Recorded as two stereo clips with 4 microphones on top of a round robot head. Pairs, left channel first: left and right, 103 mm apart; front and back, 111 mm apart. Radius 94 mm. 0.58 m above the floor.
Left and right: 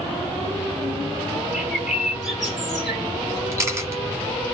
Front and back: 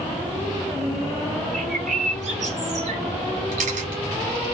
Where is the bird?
175° right, 1.2 m.